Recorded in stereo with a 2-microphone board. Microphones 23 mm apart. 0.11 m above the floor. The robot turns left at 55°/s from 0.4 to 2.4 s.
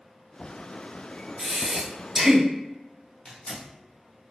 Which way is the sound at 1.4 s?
5° left.